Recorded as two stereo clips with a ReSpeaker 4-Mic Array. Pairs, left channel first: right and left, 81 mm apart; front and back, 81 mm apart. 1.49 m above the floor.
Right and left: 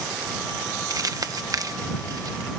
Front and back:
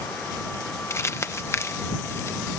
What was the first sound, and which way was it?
Crumpling, 55° left.